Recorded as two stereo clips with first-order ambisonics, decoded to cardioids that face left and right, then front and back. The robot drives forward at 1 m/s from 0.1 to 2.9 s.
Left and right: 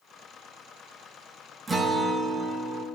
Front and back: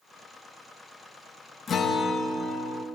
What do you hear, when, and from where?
1.7 s a guitar: 25° right, 1.1 m; by 2.9 s 165° right, 1.3 m